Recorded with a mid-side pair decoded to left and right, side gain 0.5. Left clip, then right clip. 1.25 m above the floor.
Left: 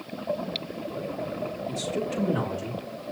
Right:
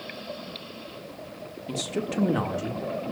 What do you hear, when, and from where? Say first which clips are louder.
1.7 s a man speaking: right 2 dB; 30° right, 3 m; by 3.1 s 25° right, 4 m